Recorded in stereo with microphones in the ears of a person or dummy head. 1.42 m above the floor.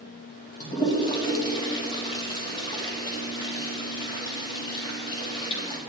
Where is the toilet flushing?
20° left (ahead or behind), 2 m.